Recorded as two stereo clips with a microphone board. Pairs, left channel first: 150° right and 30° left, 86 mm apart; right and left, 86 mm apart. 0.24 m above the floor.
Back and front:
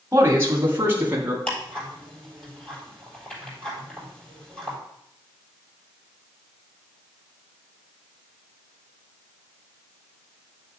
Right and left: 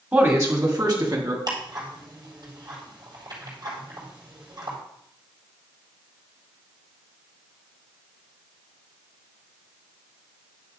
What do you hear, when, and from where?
0.1 s a man speaking: 55° left, 1.5 m; by 1.4 s 90° left, 2.5 m
1.5 s ticking: 130° left, 3.5 m